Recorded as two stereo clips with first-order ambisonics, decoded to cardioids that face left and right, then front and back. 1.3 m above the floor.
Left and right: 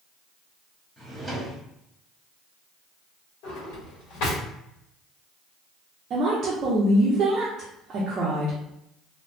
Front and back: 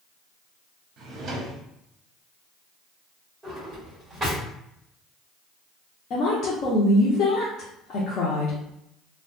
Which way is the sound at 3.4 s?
95° left.